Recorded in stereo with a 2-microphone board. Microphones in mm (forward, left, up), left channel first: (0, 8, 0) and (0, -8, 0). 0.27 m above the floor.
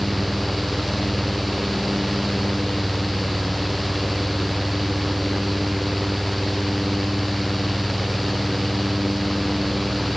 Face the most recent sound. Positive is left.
No sound to turn to.